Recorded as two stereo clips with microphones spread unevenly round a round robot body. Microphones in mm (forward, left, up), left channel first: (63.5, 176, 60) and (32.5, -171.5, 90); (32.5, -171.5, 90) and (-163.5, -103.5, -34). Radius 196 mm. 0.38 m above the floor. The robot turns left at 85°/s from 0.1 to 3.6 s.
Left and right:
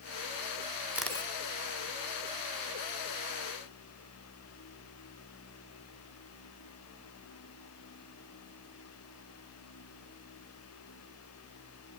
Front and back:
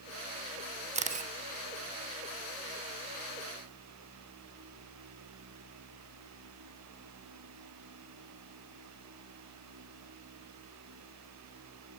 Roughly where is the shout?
No shout in this recording.